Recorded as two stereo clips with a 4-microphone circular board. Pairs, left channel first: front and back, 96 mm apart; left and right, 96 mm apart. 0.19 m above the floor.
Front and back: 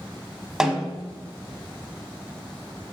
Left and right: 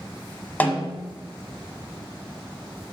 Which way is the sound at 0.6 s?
110° left.